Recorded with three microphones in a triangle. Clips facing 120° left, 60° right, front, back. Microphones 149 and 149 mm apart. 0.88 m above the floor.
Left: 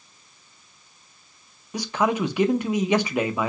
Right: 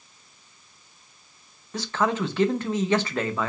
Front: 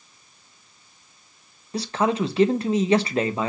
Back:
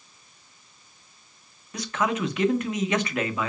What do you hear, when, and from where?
1.7 s a man speaking: 50° left, 0.5 m